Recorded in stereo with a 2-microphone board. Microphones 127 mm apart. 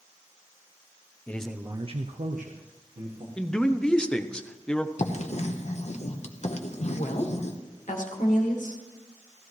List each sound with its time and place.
1.3 s a man speaking: 15° left (ahead or behind), 0.7 m; by 3.3 s 75° right (ahead or behind), 1.6 m
3.4 s a man speaking: 5° left (ahead or behind), 0.7 m
5.0 s writing: 60° left (ahead or behind), 0.9 m
6.9 s a woman speaking: 90° left, 1.8 m